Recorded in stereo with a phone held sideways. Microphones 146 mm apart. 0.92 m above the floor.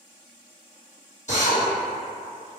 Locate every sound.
1.3 s a drill: 55° left (ahead or behind), 1.3 m